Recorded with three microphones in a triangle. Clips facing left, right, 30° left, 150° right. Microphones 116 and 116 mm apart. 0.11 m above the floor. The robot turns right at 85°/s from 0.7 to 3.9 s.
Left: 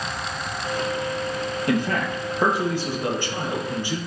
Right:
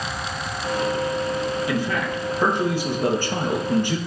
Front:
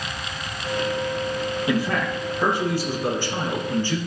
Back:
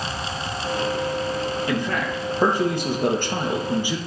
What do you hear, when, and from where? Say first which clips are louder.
1.7 s a man speaking: left 1 dB, front 1 dB; 100° left, 2 m; by 4.0 s 70° right, 2 m